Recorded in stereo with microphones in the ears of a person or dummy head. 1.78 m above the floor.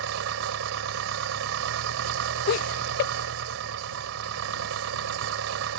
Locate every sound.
0.0 s an engine running: 70° right (ahead or behind)
2.5 s laughter: 50° left (ahead or behind)